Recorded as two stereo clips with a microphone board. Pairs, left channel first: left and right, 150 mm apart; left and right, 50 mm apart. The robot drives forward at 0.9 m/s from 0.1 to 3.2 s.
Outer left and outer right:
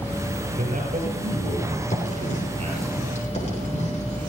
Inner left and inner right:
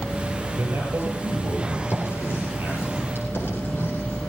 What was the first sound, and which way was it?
A man speaking, 60° right (ahead or behind).